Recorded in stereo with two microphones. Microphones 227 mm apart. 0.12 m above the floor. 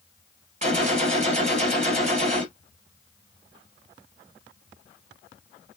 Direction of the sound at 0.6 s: 35° right (ahead or behind).